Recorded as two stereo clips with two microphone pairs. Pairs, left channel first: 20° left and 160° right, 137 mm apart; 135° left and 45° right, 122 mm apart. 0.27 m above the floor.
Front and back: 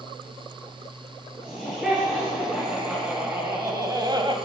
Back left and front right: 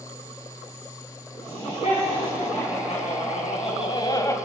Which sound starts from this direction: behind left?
Laughter, at 1.4 s.